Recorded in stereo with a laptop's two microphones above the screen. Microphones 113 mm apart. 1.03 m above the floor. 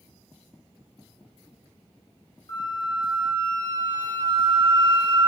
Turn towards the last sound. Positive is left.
turn(degrees=40)  # may be behind; listen again after turning